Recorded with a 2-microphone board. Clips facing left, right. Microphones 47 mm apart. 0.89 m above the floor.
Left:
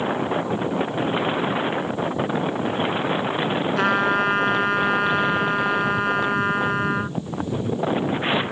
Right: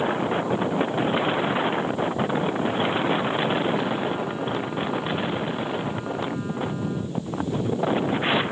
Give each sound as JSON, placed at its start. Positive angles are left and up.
{"t": 3.8, "sound": "a trumpet", "side_deg": 75}